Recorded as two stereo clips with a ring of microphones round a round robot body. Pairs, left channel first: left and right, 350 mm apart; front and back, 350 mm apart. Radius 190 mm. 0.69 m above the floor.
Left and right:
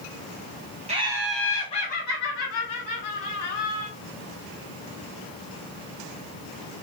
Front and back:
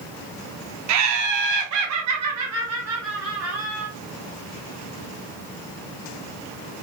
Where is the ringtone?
No ringtone in this recording.